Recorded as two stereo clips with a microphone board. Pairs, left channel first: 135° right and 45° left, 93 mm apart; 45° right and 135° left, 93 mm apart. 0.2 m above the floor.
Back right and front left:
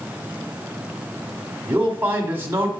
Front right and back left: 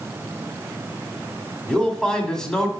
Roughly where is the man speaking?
Ahead left.